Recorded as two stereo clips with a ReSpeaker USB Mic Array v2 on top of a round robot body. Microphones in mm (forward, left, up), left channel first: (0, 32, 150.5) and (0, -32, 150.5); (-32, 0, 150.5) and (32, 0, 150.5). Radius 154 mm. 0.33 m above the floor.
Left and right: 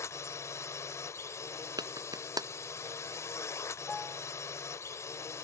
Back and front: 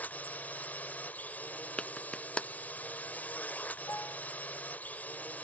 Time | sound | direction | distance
0.0 | a drone | 120° left | ?
1.8 | a clap | 105° right | ?
3.9 | a piano | 160° left | ?